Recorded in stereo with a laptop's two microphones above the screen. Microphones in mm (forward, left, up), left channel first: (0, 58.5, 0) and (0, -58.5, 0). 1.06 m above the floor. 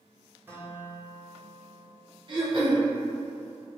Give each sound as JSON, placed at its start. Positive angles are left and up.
{"t": 0.5, "sound": "a guitar", "side_deg": -15, "distance_m": 0.5}
{"t": 2.3, "sound": "throat clearing", "side_deg": -45, "distance_m": 0.9}